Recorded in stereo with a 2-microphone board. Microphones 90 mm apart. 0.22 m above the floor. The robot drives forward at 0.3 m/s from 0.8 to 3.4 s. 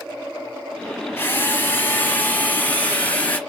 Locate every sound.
1.2 s a drill: 25° left (ahead or behind), 1.0 m; by 3.4 s 15° left (ahead or behind), 1.5 m